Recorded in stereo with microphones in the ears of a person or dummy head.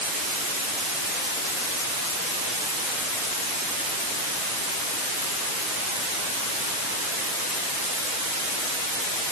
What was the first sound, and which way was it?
Only background noise.